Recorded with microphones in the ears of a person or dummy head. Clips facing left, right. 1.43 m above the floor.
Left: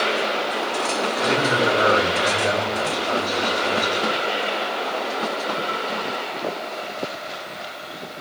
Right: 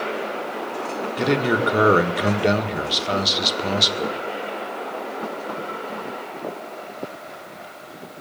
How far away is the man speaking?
About 1.8 m.